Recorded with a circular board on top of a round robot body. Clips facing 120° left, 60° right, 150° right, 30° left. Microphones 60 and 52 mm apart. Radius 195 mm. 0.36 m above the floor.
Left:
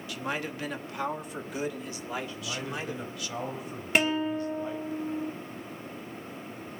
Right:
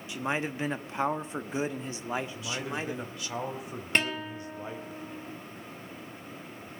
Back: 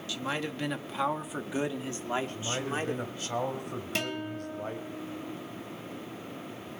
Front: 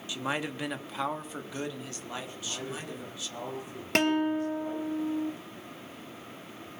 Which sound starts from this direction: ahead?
A man speaking, at 0.1 s.